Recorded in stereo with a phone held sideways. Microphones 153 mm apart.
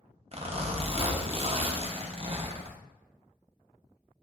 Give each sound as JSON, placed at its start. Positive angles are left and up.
{"t": 0.3, "sound": "a zipper", "side_deg": -40, "distance_m": 0.6}